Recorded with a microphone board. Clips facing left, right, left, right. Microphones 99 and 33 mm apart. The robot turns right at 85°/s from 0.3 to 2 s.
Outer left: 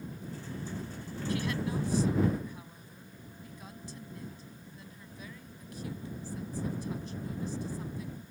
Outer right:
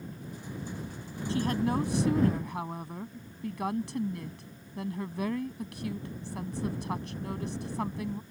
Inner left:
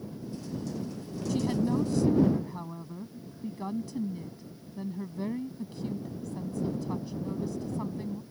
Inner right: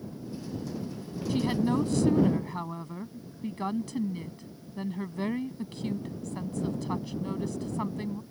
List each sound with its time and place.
1.3 s a woman speaking: 150° right; by 8.2 s 90° right